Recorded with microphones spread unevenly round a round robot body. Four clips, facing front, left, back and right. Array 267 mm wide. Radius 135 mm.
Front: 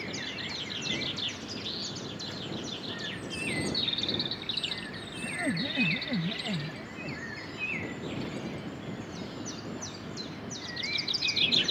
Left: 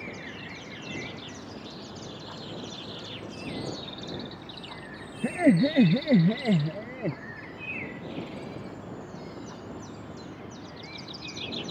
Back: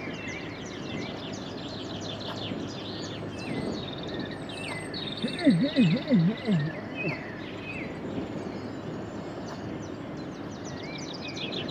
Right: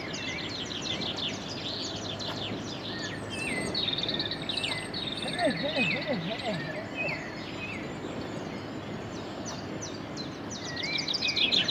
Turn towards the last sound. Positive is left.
turn(degrees=120)